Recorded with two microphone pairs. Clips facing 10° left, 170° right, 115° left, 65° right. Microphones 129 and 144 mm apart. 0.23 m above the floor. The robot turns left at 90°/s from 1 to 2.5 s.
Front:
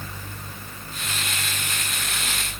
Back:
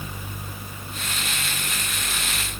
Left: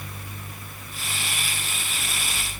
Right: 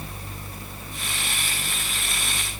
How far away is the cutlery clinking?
No cutlery clinking in this recording.